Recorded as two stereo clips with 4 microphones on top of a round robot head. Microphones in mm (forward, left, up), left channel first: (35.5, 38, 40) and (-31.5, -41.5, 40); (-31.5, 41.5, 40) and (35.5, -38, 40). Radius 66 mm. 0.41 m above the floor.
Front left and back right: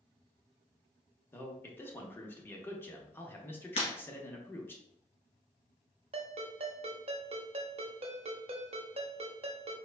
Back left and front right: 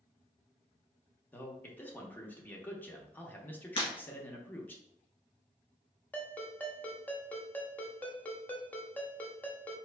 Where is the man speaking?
80° left, 0.8 m.